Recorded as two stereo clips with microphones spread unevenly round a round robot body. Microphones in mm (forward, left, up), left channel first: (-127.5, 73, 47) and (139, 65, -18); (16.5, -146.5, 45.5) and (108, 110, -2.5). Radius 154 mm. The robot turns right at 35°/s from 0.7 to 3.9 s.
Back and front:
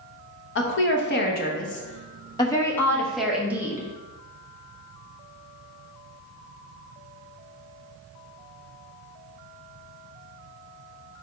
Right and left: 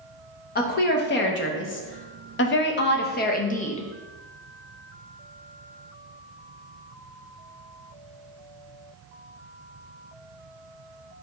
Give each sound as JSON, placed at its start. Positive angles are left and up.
{"t": 0.6, "sound": "a woman speaking", "azimuth_deg": -155, "distance_m": 0.9}